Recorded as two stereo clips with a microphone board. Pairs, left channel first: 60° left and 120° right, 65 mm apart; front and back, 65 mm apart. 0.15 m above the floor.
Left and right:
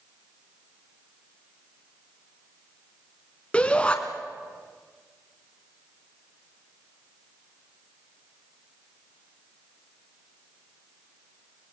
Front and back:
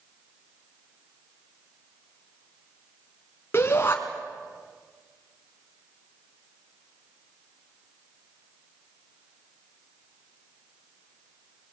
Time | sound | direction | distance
3.5 | a shout | straight ahead | 1.4 m